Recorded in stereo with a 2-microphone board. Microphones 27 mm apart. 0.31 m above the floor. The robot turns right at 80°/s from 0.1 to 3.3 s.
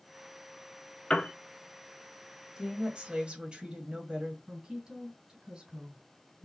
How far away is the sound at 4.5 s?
About 2.5 m.